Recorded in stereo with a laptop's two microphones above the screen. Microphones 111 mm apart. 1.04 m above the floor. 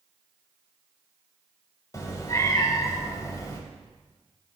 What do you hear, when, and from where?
1.9 s a cat meowing: 30° left (ahead or behind), 0.9 m